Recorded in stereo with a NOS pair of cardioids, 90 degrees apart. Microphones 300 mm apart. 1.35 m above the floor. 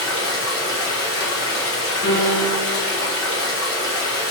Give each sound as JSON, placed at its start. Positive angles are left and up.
{"t": 0.0, "sound": "running water", "azimuth_deg": 45, "distance_m": 1.3}
{"t": 2.0, "sound": "a piano", "azimuth_deg": 40, "distance_m": 1.2}